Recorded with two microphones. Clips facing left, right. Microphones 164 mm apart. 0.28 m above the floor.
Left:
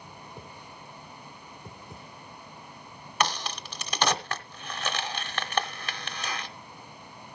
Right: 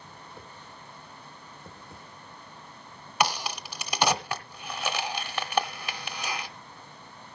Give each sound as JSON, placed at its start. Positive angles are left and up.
{"t": 0.2, "sound": "a whoosh", "side_deg": 15, "distance_m": 1.2}
{"t": 3.2, "sound": "a crack", "side_deg": -10, "distance_m": 1.1}